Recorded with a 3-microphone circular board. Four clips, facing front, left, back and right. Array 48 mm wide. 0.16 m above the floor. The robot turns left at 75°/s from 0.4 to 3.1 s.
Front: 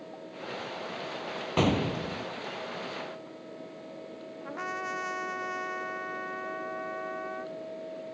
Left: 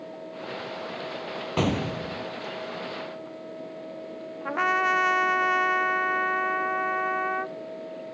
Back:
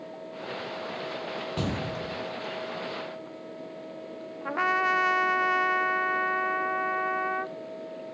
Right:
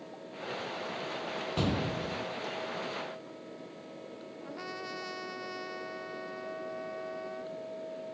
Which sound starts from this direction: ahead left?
An explosion, at 1.6 s.